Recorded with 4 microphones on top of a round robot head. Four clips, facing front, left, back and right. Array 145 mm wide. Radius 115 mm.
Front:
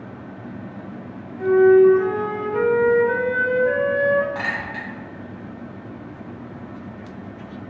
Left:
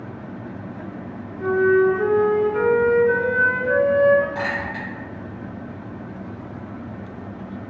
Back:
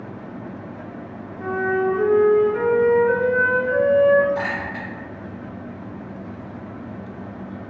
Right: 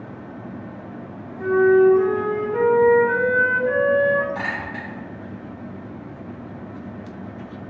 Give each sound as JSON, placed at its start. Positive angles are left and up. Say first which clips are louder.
{"t": 1.4, "sound": "a flute", "louder": "right 2 dB, front 10 dB", "azimuth_deg": -55, "distance_m": 1.2}
{"t": 4.3, "sound": "a clink", "louder": "left 2 dB, back 2 dB", "azimuth_deg": 20, "distance_m": 1.3}